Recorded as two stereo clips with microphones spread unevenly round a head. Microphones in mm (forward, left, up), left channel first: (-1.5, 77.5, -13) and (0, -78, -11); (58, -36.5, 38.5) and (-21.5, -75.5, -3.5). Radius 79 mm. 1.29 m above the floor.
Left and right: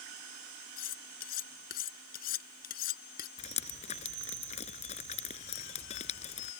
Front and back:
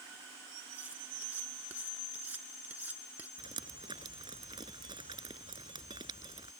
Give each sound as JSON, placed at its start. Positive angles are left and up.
{"t": 0.8, "sound": "cutlery clinking", "azimuth_deg": 125}
{"t": 3.4, "sound": "dripping", "azimuth_deg": 140}